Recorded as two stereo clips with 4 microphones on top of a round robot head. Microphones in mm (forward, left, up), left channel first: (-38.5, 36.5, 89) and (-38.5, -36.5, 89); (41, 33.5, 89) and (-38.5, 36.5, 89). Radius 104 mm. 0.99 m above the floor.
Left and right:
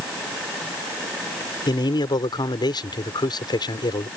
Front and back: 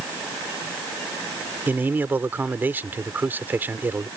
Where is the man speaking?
110° left.